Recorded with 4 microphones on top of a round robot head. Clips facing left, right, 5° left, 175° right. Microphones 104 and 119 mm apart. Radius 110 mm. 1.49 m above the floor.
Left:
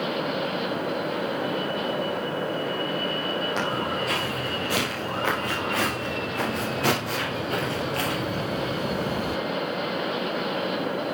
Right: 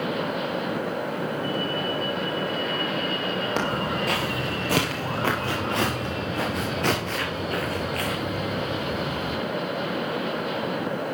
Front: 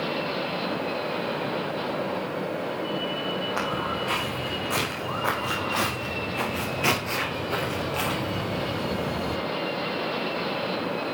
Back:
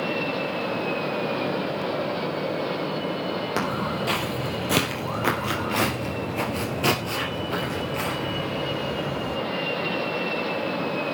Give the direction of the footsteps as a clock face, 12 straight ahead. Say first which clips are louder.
Right 1 dB, back 2 dB; 5 o'clock.